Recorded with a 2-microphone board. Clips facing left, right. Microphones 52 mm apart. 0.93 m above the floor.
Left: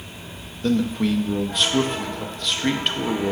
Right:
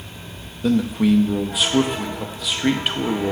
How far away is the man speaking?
About 0.8 m.